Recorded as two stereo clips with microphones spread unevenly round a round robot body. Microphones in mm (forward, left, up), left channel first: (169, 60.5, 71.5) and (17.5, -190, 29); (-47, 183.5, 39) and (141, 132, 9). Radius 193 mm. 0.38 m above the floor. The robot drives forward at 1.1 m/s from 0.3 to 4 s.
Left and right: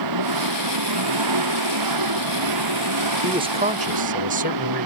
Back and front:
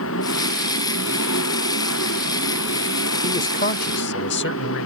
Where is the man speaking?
165° right; by 4.9 s 175° right.